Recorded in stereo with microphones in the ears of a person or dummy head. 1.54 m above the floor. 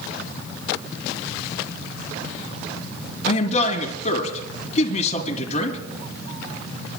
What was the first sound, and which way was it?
A man speaking, 40° left (ahead or behind).